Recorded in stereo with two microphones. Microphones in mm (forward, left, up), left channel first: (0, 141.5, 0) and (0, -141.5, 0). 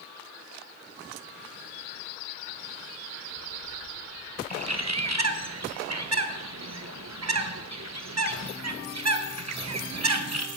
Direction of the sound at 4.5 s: 60° right (ahead or behind).